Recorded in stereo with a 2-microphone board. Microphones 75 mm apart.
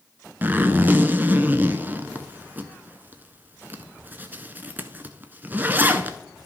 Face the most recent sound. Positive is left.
turn(degrees=-25)  # may be behind; listen again after turning